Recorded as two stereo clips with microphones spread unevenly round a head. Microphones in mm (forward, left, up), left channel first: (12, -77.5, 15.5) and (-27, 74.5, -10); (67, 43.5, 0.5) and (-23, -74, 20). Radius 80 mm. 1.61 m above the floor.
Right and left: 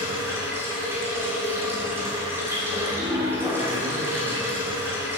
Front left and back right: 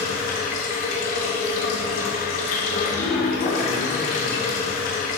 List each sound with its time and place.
0.0 s running water: 25° left, 2.5 m